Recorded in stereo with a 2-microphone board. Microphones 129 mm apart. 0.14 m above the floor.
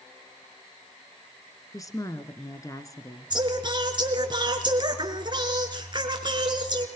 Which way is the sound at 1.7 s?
25° left (ahead or behind).